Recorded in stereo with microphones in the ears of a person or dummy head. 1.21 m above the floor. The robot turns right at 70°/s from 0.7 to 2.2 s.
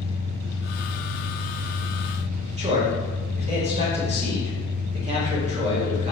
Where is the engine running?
150° right, 0.7 m; by 6.1 s 45° right, 0.7 m.